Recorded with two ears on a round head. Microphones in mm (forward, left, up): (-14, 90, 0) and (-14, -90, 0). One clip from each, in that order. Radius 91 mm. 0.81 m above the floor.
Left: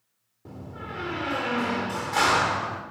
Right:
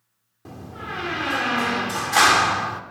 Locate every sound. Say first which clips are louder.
0.5 s a door slam: right 5 dB; 40° right (ahead or behind), 1.2 m